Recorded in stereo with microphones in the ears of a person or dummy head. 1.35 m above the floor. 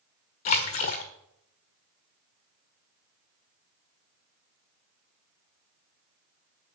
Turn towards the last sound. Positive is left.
turn(degrees=45)  # may be behind; listen again after turning